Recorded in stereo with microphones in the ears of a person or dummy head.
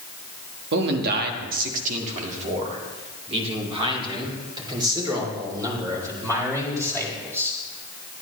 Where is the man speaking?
60° right (ahead or behind), 1.6 m; by 7.6 s 15° right (ahead or behind), 4.5 m.